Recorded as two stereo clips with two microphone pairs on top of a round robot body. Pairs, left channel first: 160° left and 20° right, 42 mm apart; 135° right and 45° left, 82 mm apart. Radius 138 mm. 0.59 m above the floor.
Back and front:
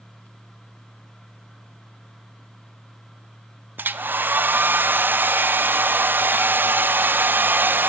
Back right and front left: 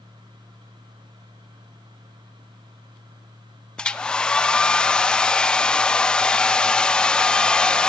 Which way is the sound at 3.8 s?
55° right.